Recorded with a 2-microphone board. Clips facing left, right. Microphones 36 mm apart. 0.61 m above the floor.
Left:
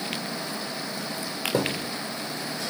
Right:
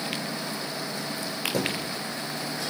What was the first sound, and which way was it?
A thud, 25° left (ahead or behind).